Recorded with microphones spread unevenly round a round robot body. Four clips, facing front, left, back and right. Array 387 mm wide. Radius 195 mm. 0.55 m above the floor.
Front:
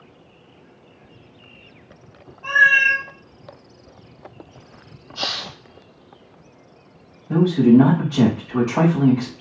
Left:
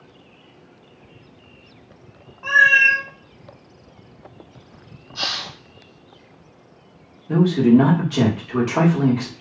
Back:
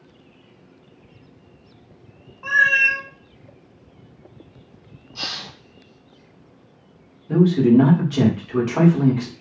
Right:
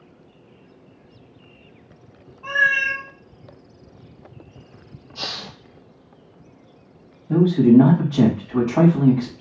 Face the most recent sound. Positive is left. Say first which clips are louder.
# right 1 dB, front 1 dB
turn(degrees=145)